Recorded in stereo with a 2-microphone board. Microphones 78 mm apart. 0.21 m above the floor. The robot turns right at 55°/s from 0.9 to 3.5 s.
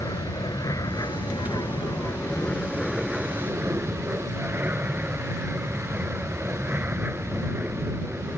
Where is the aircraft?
65° left; by 8.4 s 150° right.